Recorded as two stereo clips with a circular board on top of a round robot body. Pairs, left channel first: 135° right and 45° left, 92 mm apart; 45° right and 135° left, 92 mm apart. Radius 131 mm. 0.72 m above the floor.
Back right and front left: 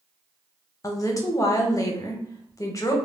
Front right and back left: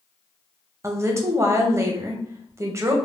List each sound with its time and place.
0.8 s a woman speaking: 175° right, 0.7 m